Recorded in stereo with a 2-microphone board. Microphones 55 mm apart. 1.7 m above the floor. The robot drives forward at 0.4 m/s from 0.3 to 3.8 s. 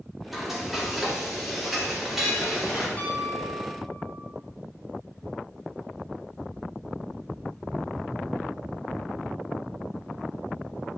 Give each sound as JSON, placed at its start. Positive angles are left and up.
{"t": 0.3, "sound": "frying", "side_deg": -5, "distance_m": 2.5}
{"t": 3.0, "sound": "a piano", "side_deg": 20, "distance_m": 5.0}